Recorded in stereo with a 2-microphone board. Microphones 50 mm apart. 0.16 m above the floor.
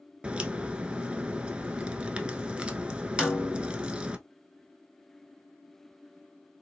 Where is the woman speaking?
No woman speaking in this recording.